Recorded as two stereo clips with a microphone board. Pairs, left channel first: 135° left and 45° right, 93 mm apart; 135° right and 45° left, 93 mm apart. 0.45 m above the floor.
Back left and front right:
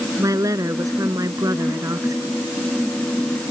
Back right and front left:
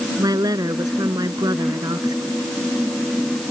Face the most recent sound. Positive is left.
turn(degrees=5)